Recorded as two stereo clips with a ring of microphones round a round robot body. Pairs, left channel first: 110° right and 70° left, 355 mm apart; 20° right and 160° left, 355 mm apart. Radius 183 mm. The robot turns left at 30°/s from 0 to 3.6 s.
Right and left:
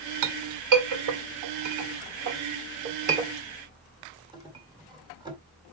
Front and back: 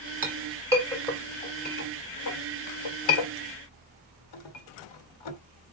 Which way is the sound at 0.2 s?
90° left.